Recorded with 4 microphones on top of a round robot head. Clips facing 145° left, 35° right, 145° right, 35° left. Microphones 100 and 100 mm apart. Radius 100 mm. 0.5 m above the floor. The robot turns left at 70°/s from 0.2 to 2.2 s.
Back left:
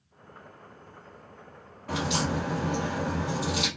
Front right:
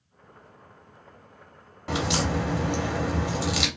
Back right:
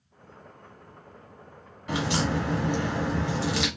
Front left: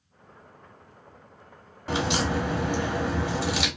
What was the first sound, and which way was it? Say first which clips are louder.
A crack: front right 2 dB, front left 1 dB; 20° right.